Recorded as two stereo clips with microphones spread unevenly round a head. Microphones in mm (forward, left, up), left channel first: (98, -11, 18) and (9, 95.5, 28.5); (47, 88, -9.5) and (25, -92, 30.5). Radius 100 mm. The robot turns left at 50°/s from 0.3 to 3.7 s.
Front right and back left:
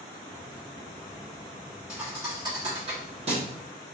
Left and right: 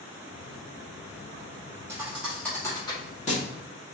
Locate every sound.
1.9 s a thud: 155° right, 0.8 m; by 3.5 s 130° left, 0.8 m